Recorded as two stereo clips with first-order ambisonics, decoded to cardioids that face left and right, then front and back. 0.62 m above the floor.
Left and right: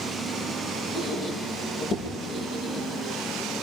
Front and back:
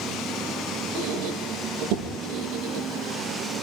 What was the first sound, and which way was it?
A squeak, 150° left.